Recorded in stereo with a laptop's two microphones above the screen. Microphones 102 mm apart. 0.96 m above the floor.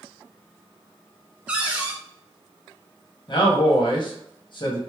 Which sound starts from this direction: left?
A man speaking, at 3.3 s.